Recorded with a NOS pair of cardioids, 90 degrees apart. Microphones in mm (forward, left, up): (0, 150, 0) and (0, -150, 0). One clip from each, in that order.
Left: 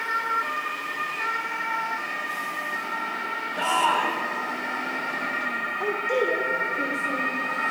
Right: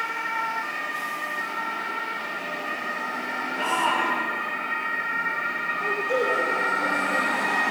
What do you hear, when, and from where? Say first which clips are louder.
3.6 s a shout: left 2 dB; 65° left, 6.5 m
5.8 s a woman speaking: even; 45° left, 3 m